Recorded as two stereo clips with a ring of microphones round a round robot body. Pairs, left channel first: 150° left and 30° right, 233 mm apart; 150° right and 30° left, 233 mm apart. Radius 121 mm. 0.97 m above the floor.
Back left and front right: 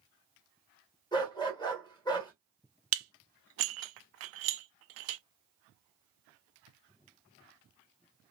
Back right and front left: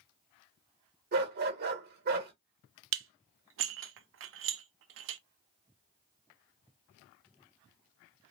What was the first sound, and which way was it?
A dog barking, 80° left.